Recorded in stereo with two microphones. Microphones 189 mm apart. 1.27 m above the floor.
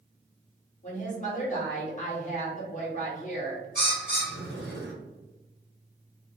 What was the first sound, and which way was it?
A woman speaking, 40° left (ahead or behind).